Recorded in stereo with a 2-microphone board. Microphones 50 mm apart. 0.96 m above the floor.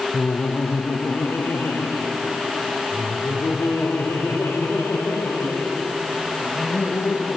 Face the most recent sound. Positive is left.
turn(degrees=65)  # may be behind; listen again after turning